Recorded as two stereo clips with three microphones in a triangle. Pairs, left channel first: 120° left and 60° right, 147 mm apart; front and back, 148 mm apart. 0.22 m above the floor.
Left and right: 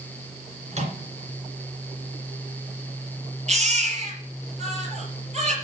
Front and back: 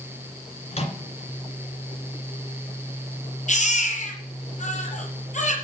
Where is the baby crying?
25° right, 4 m.